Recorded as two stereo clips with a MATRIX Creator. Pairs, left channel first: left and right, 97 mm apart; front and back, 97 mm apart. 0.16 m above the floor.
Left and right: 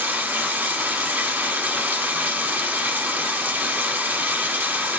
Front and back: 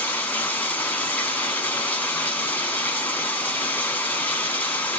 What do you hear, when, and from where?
0.0 s running water: 45° right, 1.2 m